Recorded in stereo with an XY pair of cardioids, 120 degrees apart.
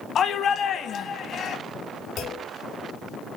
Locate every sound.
0.1 s a shout: 45° left, 1.1 m
2.2 s a clunk: 60° left, 1.5 m